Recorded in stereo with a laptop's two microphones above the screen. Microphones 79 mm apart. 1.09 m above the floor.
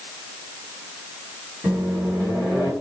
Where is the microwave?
20° right (ahead or behind), 1.6 m.